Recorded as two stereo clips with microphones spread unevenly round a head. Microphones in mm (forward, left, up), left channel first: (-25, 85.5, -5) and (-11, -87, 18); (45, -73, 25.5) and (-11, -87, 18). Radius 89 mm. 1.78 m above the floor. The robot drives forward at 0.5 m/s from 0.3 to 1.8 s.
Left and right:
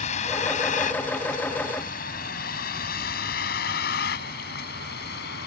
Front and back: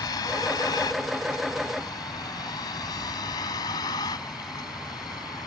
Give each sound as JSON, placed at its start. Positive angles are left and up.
{"t": 0.0, "sound": "a vehicle", "azimuth_deg": 35}